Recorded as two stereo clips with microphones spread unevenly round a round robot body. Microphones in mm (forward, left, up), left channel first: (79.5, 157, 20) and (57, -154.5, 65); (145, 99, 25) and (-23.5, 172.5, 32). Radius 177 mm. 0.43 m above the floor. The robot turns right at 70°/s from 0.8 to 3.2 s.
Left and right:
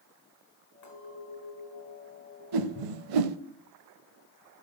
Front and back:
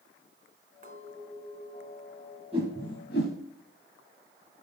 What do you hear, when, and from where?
0.8 s a clink: 115° left, 4.5 m; by 2.4 s 130° right, 4.5 m
2.5 s a whoosh: 130° right, 0.7 m; by 3.4 s 80° right, 0.7 m